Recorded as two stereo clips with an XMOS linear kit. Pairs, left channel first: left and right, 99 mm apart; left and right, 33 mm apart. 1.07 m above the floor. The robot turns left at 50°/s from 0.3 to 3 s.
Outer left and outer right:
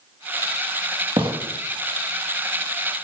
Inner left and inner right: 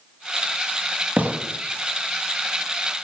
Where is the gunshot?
60° right (ahead or behind), 1.4 m; by 1.4 s 70° right (ahead or behind), 1.4 m.